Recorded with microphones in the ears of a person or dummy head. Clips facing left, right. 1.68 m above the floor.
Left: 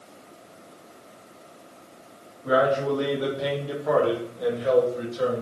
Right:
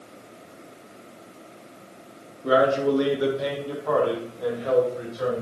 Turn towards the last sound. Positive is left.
turn(degrees=50)  # may be behind; listen again after turning